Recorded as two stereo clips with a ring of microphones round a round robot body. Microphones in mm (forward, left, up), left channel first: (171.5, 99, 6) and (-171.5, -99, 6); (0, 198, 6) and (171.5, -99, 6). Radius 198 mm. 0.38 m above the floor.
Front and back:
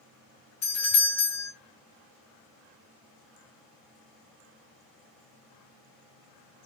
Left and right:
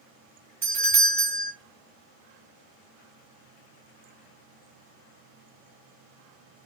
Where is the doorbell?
10° right, 2.5 m.